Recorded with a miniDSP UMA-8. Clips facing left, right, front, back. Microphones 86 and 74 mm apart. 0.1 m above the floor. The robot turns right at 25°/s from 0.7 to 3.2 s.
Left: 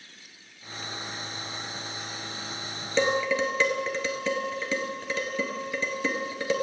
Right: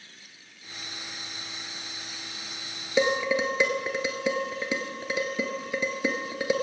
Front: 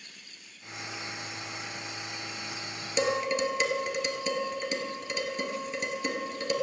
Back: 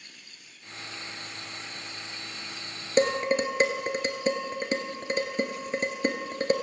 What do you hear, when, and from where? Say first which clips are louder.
3.0 s dishes clattering: even, back 4 dB; 165° right, 1.2 m; by 6.5 s 155° right, 1.2 m